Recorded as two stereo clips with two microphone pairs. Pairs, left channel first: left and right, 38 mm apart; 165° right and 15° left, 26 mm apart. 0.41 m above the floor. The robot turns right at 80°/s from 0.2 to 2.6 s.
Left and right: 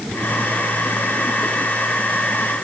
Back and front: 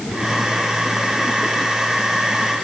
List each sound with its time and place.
Only background noise.